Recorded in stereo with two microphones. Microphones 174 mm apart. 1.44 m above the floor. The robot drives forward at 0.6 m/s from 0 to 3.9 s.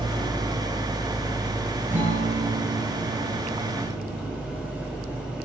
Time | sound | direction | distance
0.0 | an engine running | 30° right (ahead or behind) | 1.1 m
1.9 | a guitar | 45° right (ahead or behind) | 4.5 m